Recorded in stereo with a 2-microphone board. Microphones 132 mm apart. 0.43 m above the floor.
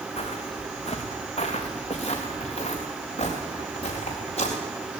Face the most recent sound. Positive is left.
turn(degrees=50)  # may be behind; listen again after turning